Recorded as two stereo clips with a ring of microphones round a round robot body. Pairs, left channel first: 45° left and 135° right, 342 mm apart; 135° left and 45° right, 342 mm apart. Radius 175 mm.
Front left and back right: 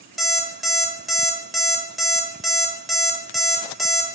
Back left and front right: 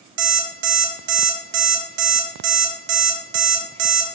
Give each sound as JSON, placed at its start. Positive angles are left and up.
{"t": 0.2, "sound": "an alarm clock", "azimuth_deg": -45, "distance_m": 1.4}